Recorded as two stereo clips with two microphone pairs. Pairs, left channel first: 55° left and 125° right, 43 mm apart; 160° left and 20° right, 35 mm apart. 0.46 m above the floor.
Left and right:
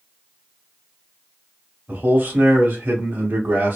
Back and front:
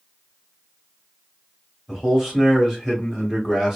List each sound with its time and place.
1.9 s a man speaking: 105° right, 1.5 m